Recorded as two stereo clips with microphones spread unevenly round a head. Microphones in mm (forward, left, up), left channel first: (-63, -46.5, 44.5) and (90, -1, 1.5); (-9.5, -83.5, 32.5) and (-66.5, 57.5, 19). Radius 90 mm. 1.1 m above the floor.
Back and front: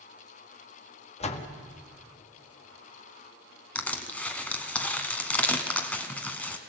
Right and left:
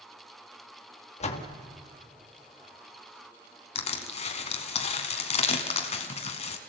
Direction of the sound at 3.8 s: 95° right.